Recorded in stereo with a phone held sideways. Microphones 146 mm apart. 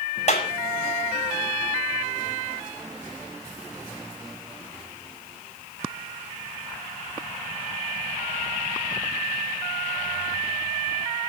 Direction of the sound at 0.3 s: 50° left (ahead or behind).